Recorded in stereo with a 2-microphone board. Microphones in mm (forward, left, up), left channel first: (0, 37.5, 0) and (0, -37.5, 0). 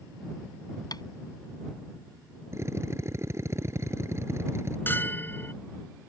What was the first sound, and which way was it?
Tapping, 60° left (ahead or behind).